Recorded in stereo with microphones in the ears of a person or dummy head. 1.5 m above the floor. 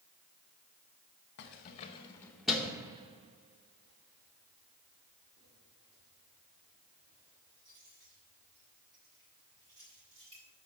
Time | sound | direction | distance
1.4 | keys jangling | 45° left (ahead or behind) | 1.0 m